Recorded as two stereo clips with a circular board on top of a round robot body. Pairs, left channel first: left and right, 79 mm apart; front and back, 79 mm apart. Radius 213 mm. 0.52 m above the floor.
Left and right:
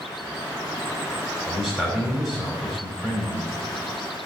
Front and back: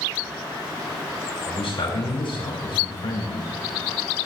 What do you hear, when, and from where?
1.5 s a man speaking: 5° left, 4.5 m